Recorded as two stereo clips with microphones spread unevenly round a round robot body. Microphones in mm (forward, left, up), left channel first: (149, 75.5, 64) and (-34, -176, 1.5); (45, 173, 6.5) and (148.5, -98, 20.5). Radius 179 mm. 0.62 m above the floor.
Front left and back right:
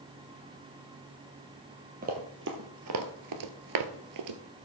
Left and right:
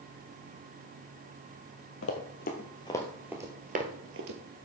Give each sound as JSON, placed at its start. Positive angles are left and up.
{"t": 2.0, "sound": "running footsteps", "azimuth_deg": 160, "distance_m": 1.1}